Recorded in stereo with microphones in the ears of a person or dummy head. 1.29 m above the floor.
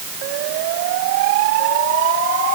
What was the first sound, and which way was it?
Only background noise.